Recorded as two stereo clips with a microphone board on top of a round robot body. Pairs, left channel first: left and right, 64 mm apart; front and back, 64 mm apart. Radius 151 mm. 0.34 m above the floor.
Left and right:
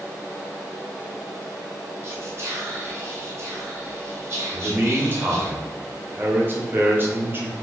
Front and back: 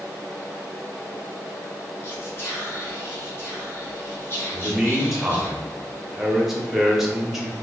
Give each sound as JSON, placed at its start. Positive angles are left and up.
{"t": 2.0, "sound": "whispering", "azimuth_deg": -45, "distance_m": 1.7}
{"t": 4.5, "sound": "a man speaking", "azimuth_deg": -95, "distance_m": 1.5}